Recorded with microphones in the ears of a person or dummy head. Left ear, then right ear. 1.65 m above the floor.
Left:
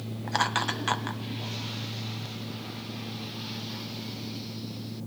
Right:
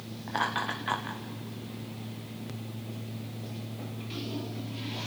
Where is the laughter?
90° left, 1.7 m.